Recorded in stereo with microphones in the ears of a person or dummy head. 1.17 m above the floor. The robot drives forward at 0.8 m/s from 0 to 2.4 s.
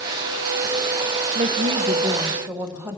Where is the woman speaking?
30° right (ahead or behind), 0.6 m; by 3.0 s 15° right (ahead or behind), 1.3 m.